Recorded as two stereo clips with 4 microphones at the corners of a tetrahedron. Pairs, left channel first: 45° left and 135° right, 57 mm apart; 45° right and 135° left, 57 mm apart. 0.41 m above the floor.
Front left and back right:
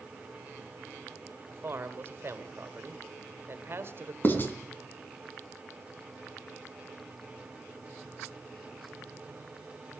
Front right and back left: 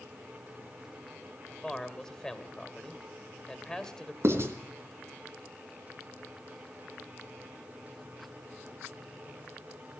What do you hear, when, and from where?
1.5 s a man speaking: 120° right, 2.0 m
4.2 s writing: 100° left, 3 m